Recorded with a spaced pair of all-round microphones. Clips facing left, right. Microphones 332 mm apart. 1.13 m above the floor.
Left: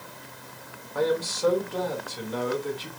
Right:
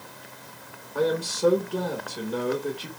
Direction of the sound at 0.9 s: 40° right (ahead or behind).